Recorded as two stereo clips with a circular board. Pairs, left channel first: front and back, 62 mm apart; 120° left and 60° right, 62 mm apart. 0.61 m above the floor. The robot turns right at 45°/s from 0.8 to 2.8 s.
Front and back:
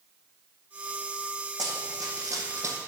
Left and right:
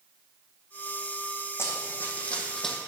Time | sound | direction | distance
1.6 | running footsteps | 165° left | 2.0 m